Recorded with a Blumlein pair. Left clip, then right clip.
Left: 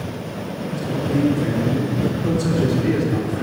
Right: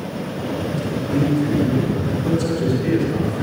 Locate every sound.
0.7 s a man speaking: 5° left, 5 m